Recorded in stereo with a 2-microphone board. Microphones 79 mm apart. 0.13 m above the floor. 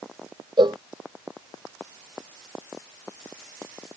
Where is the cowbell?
75° right (ahead or behind).